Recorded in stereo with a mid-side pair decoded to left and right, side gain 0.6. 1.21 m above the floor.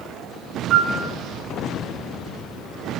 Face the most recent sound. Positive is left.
turn(degrees=-25)